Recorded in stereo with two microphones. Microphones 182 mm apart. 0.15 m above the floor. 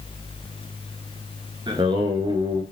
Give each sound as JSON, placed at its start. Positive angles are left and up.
{"t": 1.7, "sound": "singing", "side_deg": -25, "distance_m": 1.3}